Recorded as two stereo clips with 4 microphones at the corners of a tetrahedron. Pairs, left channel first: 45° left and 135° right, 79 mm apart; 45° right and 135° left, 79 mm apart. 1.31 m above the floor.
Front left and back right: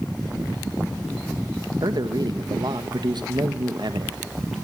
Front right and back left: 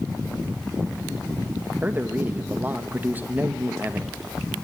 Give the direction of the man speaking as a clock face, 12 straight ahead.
5 o'clock.